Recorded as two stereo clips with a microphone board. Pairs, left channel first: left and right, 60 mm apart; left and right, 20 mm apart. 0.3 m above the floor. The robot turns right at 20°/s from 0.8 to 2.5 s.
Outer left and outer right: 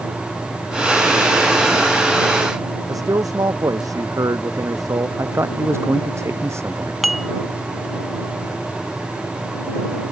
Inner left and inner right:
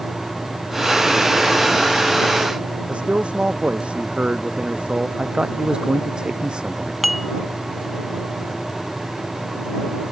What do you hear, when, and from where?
2.9 s a man speaking: 75° right (ahead or behind)
5.2 s a man speaking: 50° right (ahead or behind)
7.0 s dishes clattering: centre (ahead or behind)